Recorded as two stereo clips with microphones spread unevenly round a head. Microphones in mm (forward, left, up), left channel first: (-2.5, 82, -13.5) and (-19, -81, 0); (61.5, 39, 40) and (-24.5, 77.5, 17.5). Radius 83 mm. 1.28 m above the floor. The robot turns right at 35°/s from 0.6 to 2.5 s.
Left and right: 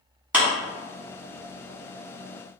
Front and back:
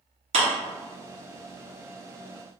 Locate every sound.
0.3 s a clap: straight behind, 1.5 m